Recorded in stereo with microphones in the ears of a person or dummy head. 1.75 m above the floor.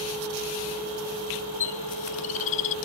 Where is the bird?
45° left (ahead or behind).